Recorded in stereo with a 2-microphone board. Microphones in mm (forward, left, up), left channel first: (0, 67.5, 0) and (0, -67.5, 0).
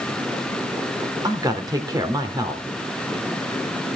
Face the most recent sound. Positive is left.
turn(degrees=-30)  # may be behind; listen again after turning